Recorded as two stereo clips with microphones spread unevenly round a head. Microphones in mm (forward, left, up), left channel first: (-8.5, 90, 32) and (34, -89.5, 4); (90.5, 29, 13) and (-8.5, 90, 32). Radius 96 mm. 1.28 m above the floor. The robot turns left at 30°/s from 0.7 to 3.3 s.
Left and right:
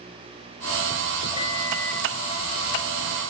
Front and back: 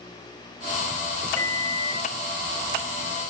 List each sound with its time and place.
1.4 s a microwave: 40° left, 1.7 m; by 2.1 s 20° left, 1.7 m